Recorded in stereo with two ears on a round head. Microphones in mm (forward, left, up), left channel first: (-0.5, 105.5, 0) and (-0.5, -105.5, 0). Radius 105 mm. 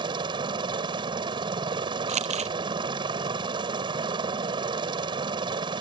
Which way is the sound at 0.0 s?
20° right (ahead or behind).